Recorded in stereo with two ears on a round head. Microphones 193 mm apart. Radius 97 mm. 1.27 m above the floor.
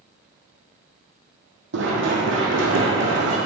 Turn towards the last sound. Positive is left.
turn(degrees=-60)  # may be behind; listen again after turning